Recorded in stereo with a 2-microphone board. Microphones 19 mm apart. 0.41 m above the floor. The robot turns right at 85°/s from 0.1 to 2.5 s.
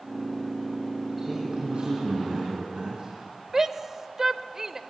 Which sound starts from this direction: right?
A shout, at 3.5 s.